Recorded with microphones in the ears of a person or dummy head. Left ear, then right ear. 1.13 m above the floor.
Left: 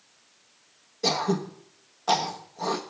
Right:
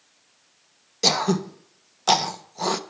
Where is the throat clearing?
85° right, 1.0 m.